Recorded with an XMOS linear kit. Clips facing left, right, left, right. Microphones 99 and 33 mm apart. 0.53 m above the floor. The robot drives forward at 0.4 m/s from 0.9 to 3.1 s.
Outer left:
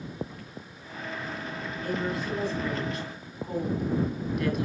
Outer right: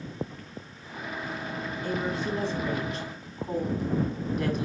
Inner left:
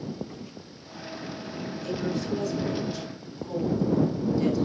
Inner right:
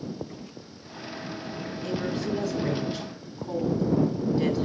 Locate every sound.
1.8 s a woman speaking: 30° right (ahead or behind), 4.5 m; by 4.7 s 35° right (ahead or behind), 4.5 m